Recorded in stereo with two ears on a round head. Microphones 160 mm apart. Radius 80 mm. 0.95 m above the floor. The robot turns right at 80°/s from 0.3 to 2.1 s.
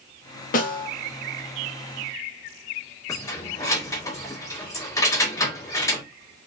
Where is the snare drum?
45° left (ahead or behind), 0.8 m; by 0.9 s 50° left (ahead or behind), 0.8 m.